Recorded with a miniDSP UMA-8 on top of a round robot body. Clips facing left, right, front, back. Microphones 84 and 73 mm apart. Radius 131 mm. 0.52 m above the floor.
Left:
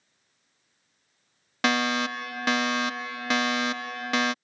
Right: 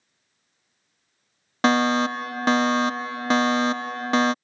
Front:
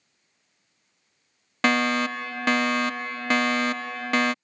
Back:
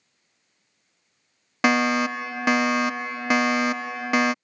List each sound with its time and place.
1.6 s a fire alarm: 110° right